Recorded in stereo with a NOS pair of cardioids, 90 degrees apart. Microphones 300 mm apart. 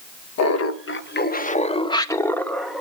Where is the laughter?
55° left, 1.1 m; by 2.8 s straight ahead, 1.6 m.